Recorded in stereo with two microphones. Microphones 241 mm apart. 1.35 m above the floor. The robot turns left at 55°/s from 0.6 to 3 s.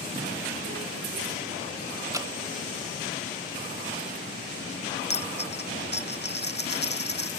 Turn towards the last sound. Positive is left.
turn(degrees=45)  # may be behind; listen again after turning